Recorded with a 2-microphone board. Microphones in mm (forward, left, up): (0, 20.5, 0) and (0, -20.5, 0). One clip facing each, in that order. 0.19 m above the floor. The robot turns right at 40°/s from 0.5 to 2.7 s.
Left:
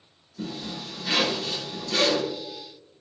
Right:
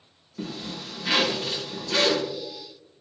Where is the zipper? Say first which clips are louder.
Even; 125° right, 1.3 m; by 2.2 s 55° right, 1.3 m.